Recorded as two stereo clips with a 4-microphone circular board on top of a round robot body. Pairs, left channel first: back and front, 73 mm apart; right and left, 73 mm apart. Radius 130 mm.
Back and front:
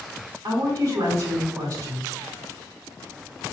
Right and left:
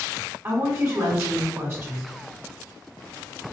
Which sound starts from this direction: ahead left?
A woman speaking, at 0.4 s.